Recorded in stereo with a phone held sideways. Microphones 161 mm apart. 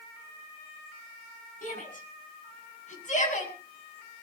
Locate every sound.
1.6 s a shout: 55° left (ahead or behind), 8.5 m; by 3.5 s 50° left (ahead or behind), 7.5 m